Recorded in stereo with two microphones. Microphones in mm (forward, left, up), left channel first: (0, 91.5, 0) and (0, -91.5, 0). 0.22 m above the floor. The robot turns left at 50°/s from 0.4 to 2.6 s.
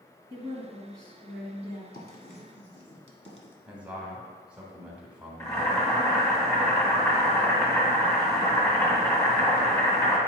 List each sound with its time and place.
0.3 s a woman speaking: 155° right, 2.5 m; by 1.8 s 130° left, 2.5 m
1.9 s writing: 55° left (ahead or behind), 1.2 m; by 3.6 s 35° left (ahead or behind), 1.2 m
3.7 s a man speaking: 5° right (ahead or behind), 1.4 m
5.4 s boiling: 15° left (ahead or behind), 1.7 m